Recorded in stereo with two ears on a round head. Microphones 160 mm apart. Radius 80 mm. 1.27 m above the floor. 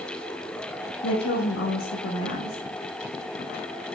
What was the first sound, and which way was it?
A woman speaking, 85° left.